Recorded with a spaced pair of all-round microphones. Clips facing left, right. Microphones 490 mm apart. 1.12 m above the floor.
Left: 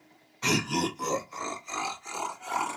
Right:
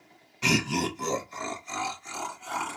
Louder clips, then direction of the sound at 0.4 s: Right 1 dB; 50° right (ahead or behind).